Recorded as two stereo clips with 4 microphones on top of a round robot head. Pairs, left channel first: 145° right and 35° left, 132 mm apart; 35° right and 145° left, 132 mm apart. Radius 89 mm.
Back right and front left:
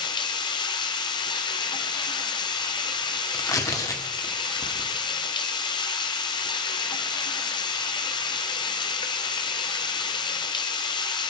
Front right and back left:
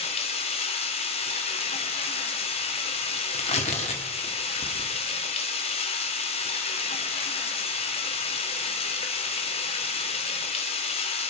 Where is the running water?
85° right, 1.5 m.